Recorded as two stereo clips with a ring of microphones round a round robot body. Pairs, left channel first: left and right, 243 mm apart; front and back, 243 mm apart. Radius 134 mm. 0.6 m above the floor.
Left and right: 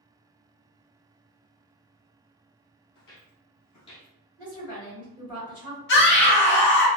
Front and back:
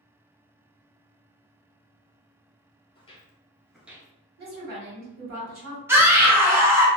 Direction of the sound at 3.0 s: 60° left.